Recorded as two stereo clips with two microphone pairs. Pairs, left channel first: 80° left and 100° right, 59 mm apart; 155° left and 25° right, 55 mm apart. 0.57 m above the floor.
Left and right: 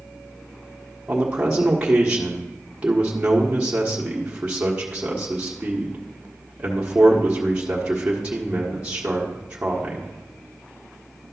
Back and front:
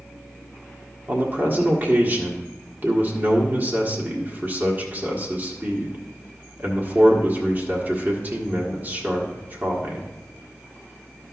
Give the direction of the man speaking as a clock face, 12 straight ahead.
1 o'clock.